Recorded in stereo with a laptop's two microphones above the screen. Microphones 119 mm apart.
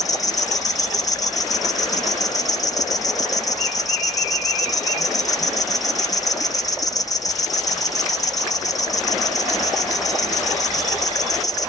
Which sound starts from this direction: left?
An insect, at 0.0 s.